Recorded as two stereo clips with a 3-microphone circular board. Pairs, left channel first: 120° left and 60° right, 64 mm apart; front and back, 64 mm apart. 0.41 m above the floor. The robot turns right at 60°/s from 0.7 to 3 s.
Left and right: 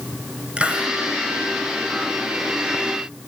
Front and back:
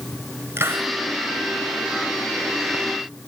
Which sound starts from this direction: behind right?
A hiss, at 0.6 s.